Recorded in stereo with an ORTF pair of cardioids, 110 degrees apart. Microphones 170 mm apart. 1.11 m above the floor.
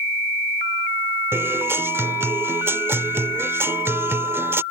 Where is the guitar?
15° right.